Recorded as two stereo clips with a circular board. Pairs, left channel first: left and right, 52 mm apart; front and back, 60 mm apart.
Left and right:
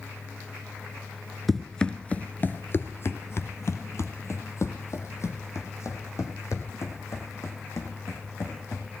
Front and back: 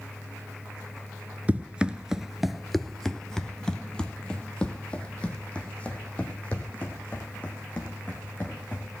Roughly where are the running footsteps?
Behind.